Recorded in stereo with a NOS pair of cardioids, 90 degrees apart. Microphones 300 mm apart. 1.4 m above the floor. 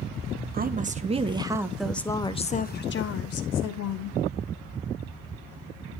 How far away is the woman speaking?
About 1.5 m.